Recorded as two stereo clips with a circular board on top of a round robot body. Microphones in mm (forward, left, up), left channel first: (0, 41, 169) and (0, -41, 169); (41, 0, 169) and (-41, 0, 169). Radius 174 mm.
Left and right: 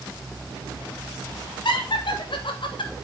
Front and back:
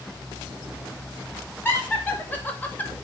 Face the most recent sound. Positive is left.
turn(degrees=75)